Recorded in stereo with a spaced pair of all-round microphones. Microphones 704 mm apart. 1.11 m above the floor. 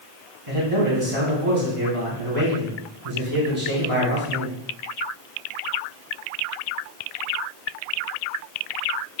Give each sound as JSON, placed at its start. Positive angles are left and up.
{"t": 0.5, "sound": "a man speaking", "side_deg": -50, "distance_m": 3.5}